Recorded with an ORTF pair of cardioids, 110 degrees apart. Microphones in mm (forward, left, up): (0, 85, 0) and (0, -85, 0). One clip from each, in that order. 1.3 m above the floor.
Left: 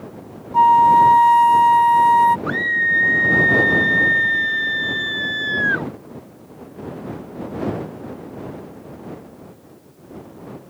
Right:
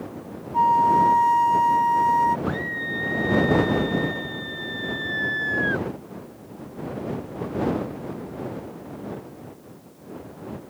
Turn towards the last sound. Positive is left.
turn(degrees=50)